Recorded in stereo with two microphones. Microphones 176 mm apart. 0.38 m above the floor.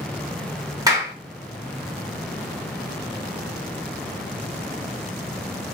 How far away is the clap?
About 0.9 m.